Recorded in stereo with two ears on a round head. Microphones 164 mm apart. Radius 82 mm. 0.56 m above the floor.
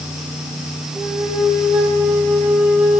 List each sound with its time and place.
0.9 s a flute: 10° right (ahead or behind), 5 m